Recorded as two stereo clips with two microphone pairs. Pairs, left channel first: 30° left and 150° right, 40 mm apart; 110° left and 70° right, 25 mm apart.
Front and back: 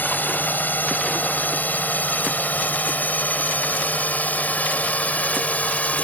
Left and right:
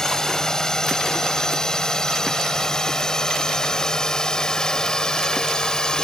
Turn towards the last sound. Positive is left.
turn(degrees=65)